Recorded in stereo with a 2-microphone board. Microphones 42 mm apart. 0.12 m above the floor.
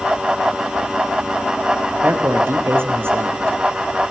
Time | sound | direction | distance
2.0 | a man speaking | 65° right (ahead or behind) | 2.5 m